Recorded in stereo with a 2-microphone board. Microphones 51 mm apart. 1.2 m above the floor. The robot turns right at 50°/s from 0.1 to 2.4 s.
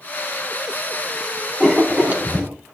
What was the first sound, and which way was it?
Writing, 170° right.